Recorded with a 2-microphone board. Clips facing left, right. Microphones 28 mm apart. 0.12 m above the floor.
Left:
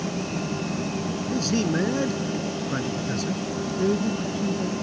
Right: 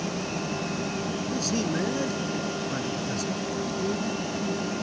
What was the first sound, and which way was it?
A man speaking, 20° left (ahead or behind).